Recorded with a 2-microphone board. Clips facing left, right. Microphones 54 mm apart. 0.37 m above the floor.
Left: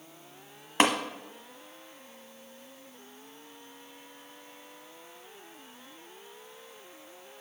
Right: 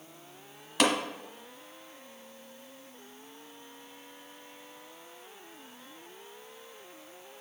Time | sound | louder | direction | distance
0.8 | tapping | left 2 dB | 35° left (ahead or behind) | 1.1 m